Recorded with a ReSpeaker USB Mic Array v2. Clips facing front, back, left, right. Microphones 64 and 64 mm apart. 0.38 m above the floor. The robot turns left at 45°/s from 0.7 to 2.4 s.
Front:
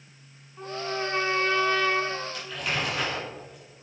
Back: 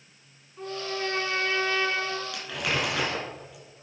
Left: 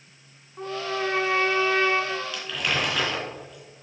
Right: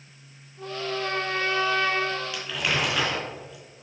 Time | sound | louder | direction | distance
0.6 | a trumpet | front 1 dB, left 2 dB | 80° left | 1.6 m
2.3 | crumpling | back 1 dB, even | 165° right | 3.5 m